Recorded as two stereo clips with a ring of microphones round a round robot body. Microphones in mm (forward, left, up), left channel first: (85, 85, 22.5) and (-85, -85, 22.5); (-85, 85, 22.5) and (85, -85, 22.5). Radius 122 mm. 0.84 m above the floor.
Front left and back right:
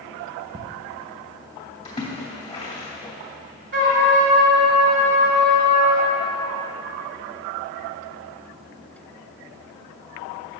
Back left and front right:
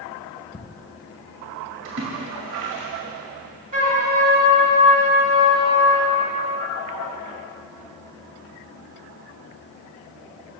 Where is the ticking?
175° left, 0.8 m.